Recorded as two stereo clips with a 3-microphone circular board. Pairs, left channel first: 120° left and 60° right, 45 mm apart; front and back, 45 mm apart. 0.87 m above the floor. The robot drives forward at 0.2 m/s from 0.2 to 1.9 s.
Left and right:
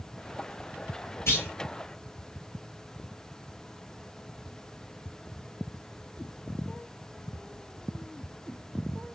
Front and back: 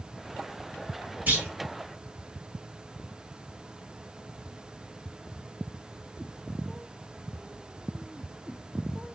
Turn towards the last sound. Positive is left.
turn(degrees=135)